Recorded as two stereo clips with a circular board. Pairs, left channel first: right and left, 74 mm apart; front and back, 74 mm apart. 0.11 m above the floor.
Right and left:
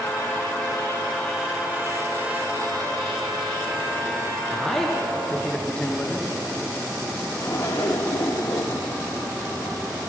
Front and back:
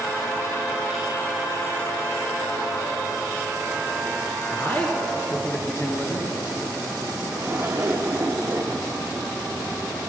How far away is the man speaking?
About 1.3 m.